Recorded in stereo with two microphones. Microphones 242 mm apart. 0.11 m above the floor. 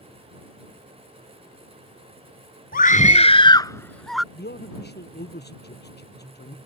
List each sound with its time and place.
2.7 s a scream: 35° left (ahead or behind); by 4.2 s centre (ahead or behind)
4.3 s a man speaking: 45° left (ahead or behind)